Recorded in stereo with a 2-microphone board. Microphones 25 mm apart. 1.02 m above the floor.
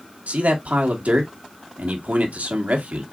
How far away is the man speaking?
About 1.6 m.